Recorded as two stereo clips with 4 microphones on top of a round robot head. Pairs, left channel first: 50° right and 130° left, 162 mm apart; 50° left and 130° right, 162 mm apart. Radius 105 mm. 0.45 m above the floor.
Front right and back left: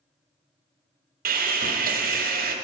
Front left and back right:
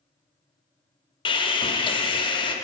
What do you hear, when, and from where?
1.2 s sawing: 105° left, 0.9 m